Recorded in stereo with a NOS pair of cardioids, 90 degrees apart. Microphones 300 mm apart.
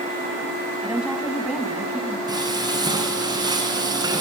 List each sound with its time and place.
0.8 s a woman speaking: straight ahead, 6.5 m
2.3 s frying: 15° right, 9 m